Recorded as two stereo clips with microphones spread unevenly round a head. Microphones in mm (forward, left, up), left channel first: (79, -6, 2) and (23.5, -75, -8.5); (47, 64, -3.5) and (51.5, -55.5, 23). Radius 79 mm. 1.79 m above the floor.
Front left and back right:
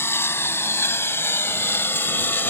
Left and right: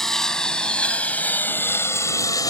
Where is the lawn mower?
5° right; by 2.5 s 35° left.